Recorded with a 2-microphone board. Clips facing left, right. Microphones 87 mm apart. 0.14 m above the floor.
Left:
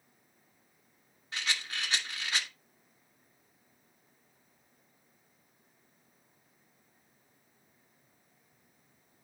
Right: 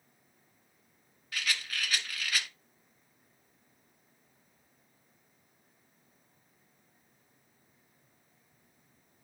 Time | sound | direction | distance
1.3 | a rattle | 25° left (ahead or behind) | 1.3 m